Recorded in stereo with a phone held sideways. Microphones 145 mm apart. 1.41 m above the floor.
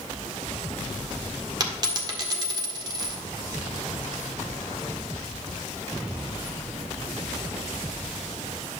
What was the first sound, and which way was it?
A dropped coin, 30° right (ahead or behind).